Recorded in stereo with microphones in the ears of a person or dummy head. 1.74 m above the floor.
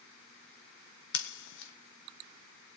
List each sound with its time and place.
1.1 s scissors: 80° left, 1.8 m